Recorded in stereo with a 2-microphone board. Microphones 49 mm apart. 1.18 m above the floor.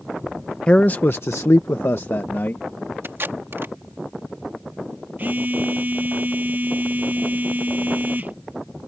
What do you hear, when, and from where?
0.7 s a man speaking: 25° left (ahead or behind); by 2.6 s 45° left (ahead or behind)
3.0 s tape being pulled: 55° right (ahead or behind)
5.2 s a phone buzzing: 35° right (ahead or behind)